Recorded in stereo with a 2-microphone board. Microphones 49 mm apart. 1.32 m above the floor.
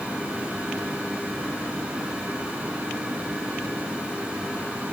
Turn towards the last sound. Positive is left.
No sound to turn to.